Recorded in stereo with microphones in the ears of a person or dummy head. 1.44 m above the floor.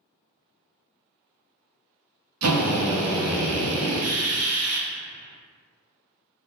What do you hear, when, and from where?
2.4 s a drill: 80° right, 0.8 m